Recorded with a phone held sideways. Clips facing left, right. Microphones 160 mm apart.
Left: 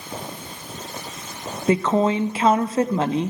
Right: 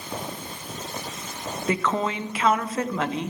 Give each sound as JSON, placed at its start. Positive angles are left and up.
{"t": 1.7, "sound": "a woman speaking", "side_deg": 30, "distance_m": 0.7}